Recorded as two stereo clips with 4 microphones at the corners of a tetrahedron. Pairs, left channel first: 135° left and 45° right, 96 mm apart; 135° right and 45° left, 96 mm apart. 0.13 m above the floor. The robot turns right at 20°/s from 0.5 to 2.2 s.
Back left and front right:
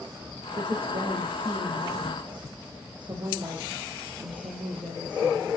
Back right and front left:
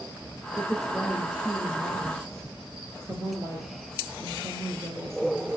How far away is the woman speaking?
About 4 m.